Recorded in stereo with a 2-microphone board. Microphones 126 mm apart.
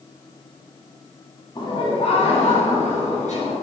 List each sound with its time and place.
1.6 s laughter: 35° left (ahead or behind), 1.2 m; by 3.5 s 65° left (ahead or behind), 2.5 m